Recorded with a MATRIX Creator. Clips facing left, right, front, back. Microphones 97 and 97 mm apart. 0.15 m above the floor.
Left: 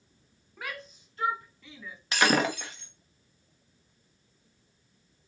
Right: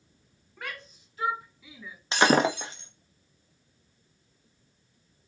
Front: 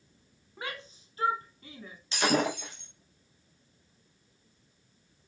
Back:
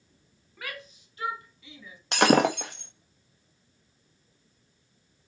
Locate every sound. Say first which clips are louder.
0.6 s a shout: left 1 dB, front 1 dB; 10° left, 1.3 m; by 2.0 s 10° right, 1.8 m
2.1 s breaking glass: right 3 dB, back 7 dB; 155° right, 1.4 m